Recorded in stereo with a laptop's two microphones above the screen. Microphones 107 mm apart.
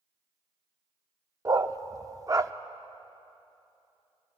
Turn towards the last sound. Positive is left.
turn(degrees=-30)  # may be behind; listen again after turning